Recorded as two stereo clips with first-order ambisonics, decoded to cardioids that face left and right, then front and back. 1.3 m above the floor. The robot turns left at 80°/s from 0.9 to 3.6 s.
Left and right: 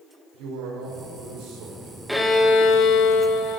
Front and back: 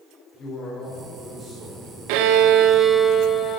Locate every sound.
0.3 s a man speaking: 70° right, 4.5 m; by 2.0 s 160° right, 4.5 m
2.1 s a violin: straight behind, 0.8 m; by 3.6 s 55° left, 0.8 m